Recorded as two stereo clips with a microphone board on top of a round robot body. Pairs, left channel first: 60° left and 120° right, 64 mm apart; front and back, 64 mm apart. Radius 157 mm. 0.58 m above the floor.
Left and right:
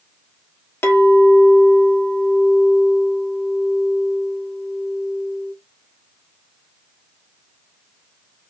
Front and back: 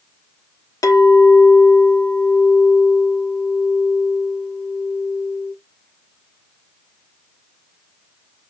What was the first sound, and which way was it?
A clink, 10° left.